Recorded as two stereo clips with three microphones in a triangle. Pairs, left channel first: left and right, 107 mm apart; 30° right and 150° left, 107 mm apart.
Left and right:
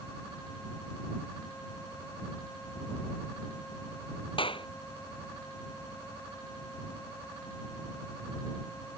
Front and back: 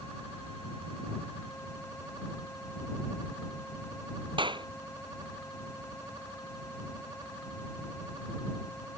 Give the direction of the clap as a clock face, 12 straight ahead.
8 o'clock.